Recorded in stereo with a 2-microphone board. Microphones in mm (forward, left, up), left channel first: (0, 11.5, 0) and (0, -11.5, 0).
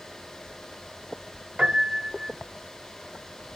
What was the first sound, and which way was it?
A piano, 55° right (ahead or behind).